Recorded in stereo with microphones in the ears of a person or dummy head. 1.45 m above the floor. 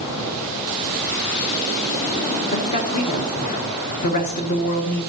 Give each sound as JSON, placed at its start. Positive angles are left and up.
{"t": 2.5, "sound": "a woman speaking", "side_deg": 35, "distance_m": 1.7}